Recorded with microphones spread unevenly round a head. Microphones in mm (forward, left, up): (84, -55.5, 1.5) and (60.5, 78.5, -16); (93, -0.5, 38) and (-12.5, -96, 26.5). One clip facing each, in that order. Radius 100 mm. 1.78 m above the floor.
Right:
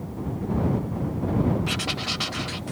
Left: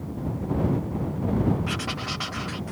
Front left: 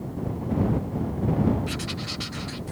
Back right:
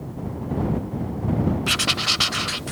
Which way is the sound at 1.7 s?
150° right.